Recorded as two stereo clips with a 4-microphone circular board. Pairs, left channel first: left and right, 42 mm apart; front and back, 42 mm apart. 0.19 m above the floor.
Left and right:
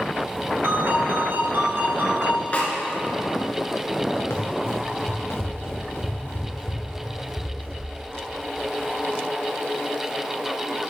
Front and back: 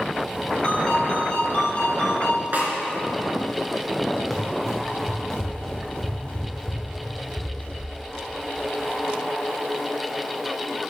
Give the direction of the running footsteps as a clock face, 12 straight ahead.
9 o'clock.